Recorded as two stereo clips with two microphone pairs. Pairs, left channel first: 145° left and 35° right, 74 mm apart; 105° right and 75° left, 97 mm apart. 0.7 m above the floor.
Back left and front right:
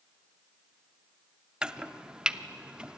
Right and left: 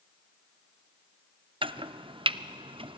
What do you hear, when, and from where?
1.6 s chopping: 45° left, 0.5 m